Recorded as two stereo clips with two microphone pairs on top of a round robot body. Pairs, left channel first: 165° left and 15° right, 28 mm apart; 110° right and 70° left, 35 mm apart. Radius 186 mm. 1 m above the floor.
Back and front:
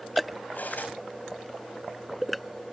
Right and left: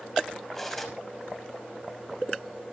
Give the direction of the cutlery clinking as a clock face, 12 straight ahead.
6 o'clock.